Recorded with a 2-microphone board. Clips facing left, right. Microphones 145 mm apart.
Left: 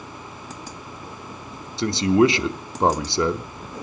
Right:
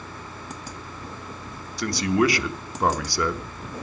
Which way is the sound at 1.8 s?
25° left (ahead or behind).